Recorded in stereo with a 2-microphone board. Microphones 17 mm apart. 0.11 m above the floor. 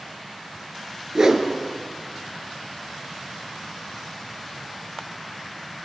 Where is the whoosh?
35° right (ahead or behind), 1.6 m.